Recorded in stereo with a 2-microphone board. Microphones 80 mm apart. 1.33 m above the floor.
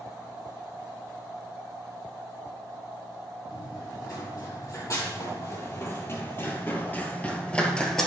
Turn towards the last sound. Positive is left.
turn(degrees=5)  # may be behind; listen again after turning